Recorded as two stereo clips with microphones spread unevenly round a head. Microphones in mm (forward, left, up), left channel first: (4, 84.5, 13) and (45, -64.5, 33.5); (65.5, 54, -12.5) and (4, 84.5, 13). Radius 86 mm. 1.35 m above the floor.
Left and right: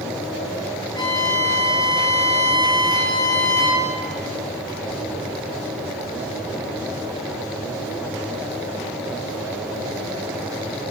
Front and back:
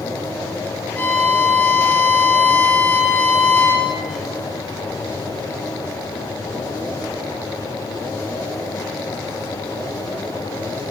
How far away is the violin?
About 9.5 m.